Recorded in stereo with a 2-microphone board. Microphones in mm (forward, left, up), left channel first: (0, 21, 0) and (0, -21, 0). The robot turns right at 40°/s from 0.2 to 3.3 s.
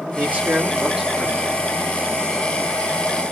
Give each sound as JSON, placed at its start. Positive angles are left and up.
{"t": 0.1, "sound": "a man speaking", "azimuth_deg": -35, "distance_m": 1.3}